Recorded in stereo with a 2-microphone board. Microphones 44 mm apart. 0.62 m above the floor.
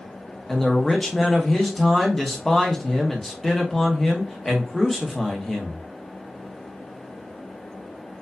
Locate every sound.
0.5 s a man speaking: 10° left (ahead or behind), 0.8 m